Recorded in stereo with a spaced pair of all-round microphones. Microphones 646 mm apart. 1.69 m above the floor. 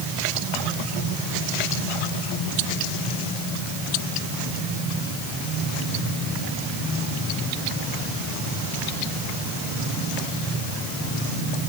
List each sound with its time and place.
Only background noise.